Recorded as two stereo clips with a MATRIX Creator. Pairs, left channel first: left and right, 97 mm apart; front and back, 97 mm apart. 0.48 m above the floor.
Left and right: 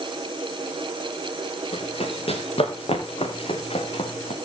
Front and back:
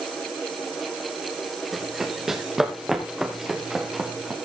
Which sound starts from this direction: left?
Running footsteps, at 1.7 s.